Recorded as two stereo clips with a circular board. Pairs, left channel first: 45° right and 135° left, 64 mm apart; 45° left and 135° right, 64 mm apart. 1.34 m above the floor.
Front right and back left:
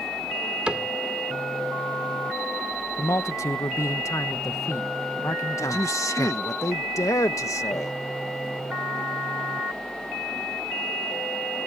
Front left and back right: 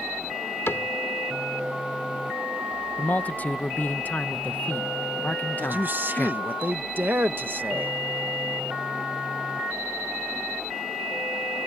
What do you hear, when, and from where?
0.7 s a cupboard door: 70° left
3.0 s a man speaking: 15° right
5.6 s a man speaking: 75° right